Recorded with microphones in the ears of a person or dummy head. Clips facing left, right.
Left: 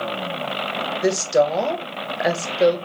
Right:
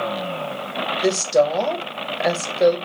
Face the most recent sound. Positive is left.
turn(degrees=5)  # may be behind; listen again after turning